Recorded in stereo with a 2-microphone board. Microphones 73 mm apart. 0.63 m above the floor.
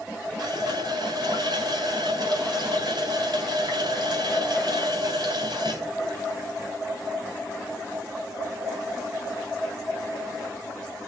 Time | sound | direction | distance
0.4 | a running tap | 70° right (ahead or behind) | 3 m